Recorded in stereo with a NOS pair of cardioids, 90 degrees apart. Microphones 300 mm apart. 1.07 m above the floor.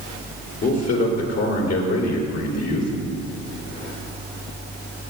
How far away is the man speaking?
About 3 m.